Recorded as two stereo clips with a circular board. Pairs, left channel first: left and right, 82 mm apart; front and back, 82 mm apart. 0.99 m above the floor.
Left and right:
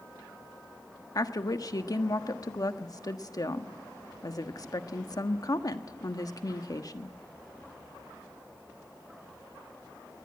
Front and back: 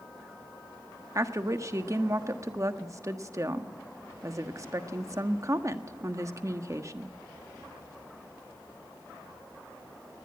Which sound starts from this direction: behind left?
A woman speaking, at 1.1 s.